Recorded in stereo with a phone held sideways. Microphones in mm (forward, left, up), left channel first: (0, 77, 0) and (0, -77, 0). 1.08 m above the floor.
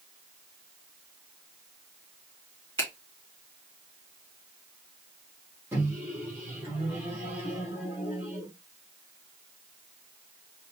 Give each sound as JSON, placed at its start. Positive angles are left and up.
{"t": 2.8, "sound": "a finger snap", "side_deg": 15, "distance_m": 2.5}
{"t": 5.7, "sound": "a microwave", "side_deg": -15, "distance_m": 2.0}